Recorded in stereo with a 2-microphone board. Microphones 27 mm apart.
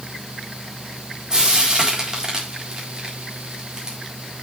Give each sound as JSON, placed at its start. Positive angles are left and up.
{"t": 1.3, "sound": "frying", "side_deg": -30, "distance_m": 4.0}